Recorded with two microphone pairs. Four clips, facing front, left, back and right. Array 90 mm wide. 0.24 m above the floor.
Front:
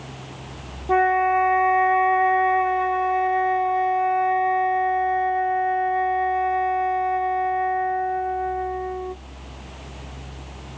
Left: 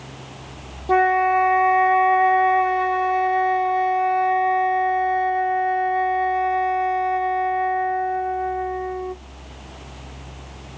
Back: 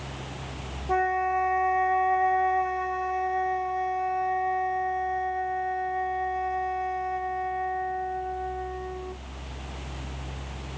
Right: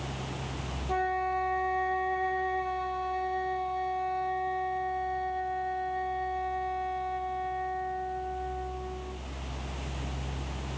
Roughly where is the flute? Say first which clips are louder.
Left 13 dB, front 7 dB; left.